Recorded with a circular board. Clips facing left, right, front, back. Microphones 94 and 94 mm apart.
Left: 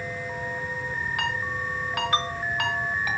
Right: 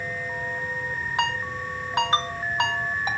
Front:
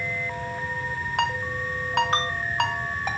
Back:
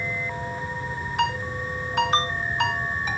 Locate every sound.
1.2 s a ringtone: 25° right, 1.8 m